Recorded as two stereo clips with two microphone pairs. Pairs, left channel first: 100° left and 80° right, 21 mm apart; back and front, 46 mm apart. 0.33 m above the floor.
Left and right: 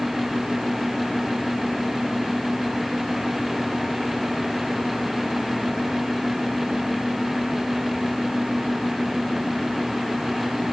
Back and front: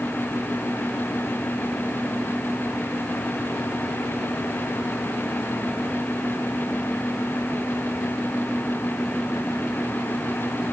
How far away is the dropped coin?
I don't hear a dropped coin.